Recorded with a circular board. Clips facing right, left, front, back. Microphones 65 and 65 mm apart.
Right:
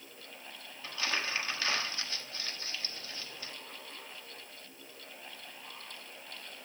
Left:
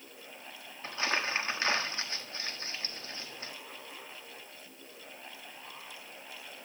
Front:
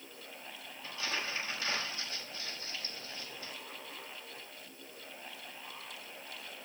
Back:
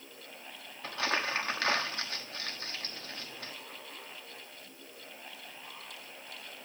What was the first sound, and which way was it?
Crumpling, 150° left.